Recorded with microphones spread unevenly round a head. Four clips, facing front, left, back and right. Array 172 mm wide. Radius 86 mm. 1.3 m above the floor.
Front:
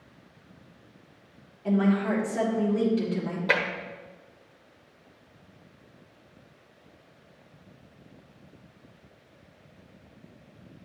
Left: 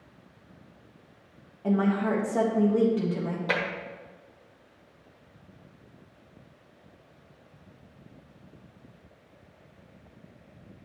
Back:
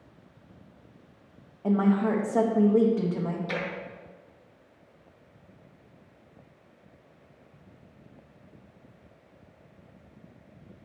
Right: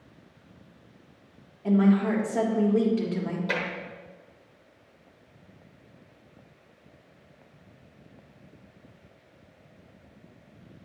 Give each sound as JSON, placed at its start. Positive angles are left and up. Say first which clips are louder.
{"t": 1.6, "sound": "a woman speaking", "louder": "right 3 dB, back 1 dB", "azimuth_deg": 155, "distance_m": 1.7}
{"t": 3.5, "sound": "tapping", "louder": "left 3 dB, front 6 dB", "azimuth_deg": 25, "distance_m": 1.1}